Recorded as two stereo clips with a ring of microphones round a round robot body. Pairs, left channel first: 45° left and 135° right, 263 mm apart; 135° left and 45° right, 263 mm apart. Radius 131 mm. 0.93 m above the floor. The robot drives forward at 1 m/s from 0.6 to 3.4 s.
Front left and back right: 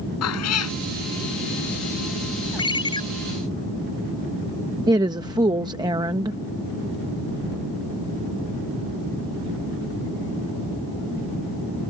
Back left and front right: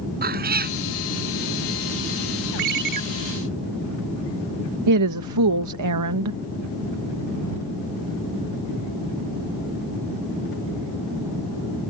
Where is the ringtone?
30° right.